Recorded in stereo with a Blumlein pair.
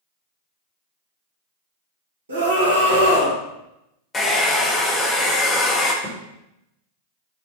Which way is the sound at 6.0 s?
35° right.